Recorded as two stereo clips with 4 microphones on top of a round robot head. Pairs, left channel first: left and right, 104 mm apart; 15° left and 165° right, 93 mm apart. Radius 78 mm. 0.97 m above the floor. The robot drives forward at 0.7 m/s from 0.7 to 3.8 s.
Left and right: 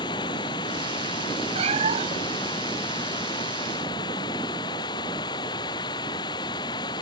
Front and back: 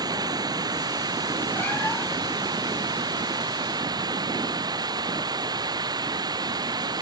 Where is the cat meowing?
65° right; by 2.4 s 75° right.